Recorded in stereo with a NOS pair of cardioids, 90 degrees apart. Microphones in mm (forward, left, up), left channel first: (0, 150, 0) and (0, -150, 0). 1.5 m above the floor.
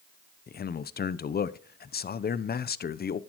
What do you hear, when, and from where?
0.5 s a man speaking: 35° left, 0.6 m